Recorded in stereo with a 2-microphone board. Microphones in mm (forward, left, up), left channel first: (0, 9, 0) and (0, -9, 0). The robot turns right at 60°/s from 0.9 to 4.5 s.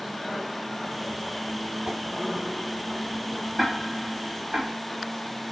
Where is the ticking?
10° right (ahead or behind), 1.6 m; by 4.7 s 60° right (ahead or behind), 1.6 m.